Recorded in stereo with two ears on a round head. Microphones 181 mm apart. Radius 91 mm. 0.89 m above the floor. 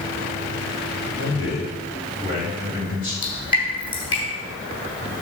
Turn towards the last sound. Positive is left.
turn(degrees=25)  # may be behind; listen again after turning